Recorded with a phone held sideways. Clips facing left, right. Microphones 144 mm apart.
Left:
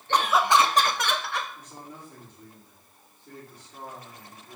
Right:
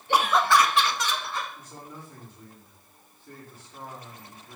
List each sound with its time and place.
0.1 s laughter: 10° right (ahead or behind), 0.9 m; by 1.4 s 75° left (ahead or behind), 1.1 m
1.6 s a man speaking: 15° left (ahead or behind), 3.5 m